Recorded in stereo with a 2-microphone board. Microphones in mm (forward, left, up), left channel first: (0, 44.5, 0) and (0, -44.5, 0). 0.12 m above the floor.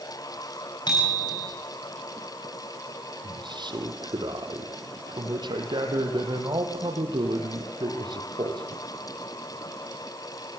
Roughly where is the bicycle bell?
Left.